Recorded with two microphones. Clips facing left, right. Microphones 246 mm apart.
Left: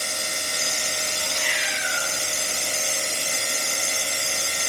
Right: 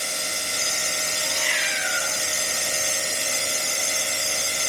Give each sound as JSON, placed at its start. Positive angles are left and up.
{"t": 1.2, "sound": "a cat meowing", "side_deg": -40, "distance_m": 7.5}